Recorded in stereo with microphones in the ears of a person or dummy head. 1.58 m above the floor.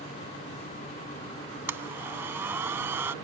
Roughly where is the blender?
Centre.